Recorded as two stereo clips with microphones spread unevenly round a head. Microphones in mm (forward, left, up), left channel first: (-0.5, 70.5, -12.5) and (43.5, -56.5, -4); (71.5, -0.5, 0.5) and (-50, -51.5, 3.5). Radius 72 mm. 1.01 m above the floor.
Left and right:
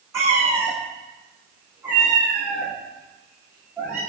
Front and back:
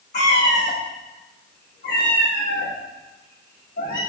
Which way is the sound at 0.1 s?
5° right.